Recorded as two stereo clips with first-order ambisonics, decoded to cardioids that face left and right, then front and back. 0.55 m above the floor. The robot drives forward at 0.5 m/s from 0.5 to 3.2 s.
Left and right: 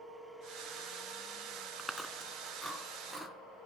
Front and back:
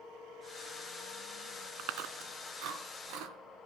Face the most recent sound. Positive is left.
turn(degrees=180)